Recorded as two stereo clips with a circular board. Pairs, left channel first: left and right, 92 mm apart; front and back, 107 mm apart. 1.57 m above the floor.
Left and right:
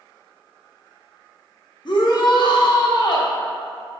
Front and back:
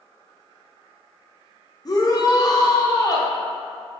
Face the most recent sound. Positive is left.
turn(degrees=50)